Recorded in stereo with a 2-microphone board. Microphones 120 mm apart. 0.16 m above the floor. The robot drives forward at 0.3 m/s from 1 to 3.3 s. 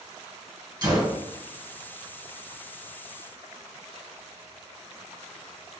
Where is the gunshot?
35° right (ahead or behind), 1.2 m.